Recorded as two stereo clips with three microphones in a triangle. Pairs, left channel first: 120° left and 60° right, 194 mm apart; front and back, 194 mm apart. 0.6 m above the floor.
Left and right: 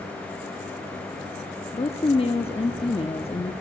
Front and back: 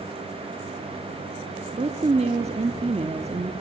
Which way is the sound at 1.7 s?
155° left.